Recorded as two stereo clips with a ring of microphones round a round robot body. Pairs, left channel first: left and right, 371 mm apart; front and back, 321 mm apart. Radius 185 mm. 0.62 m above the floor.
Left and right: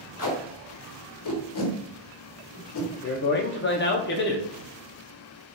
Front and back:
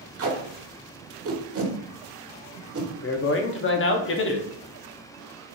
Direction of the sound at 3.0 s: 40° left.